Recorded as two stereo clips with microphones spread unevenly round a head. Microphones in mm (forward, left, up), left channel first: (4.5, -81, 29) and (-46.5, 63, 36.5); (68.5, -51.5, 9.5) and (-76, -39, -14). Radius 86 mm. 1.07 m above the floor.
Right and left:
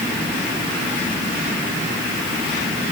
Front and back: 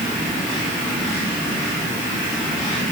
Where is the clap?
I don't hear a clap.